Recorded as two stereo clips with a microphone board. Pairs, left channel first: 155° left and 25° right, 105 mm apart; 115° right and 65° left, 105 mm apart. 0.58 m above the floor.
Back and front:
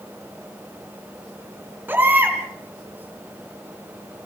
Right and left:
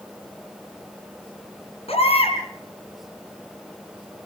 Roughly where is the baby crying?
Right.